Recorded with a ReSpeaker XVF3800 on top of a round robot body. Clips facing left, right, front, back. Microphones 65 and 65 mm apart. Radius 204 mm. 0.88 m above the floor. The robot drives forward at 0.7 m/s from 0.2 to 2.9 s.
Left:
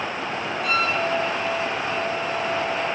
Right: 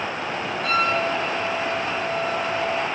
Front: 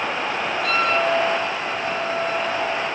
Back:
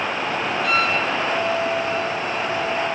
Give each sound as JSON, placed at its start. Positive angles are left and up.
{"t": 0.6, "sound": "a flute", "azimuth_deg": -45, "distance_m": 7.5}